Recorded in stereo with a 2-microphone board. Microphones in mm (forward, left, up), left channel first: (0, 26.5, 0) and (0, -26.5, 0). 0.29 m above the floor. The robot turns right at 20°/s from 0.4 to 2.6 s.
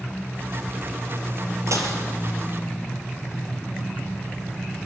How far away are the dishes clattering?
About 4.5 m.